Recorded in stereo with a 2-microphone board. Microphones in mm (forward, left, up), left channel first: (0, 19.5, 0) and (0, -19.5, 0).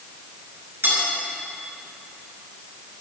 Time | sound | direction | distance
0.8 | cutlery clinking | 75° right (ahead or behind) | 5.5 m